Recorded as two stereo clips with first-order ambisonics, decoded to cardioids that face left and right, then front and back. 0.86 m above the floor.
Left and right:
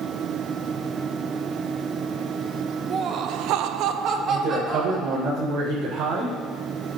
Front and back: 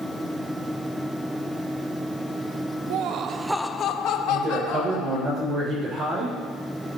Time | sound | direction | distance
2.9 | laughter | 150° right | 0.8 m
4.3 | a man speaking | 125° right | 4 m